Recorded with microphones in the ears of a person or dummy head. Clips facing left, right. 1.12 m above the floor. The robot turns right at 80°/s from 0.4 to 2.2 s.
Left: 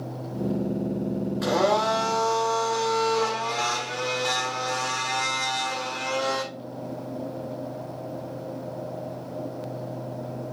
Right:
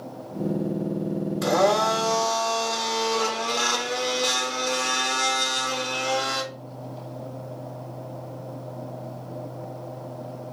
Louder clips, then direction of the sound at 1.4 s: Right 2 dB; 155° right.